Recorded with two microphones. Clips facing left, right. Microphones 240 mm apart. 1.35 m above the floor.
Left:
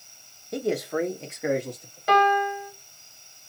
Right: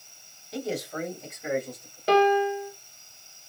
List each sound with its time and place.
0.5 s a man speaking: 55° left (ahead or behind), 1.1 m; by 2.0 s 85° left, 2 m
2.1 s a piano: 30° right (ahead or behind), 1.4 m